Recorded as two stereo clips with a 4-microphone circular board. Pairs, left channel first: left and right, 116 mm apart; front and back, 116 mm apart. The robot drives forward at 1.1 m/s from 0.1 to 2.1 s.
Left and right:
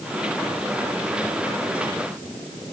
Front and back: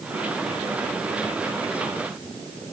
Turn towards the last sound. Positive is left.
No sound to turn to.